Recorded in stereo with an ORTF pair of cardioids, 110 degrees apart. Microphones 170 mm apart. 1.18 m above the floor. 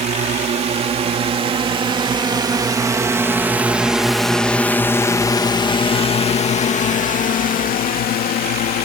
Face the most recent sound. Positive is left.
turn(degrees=70)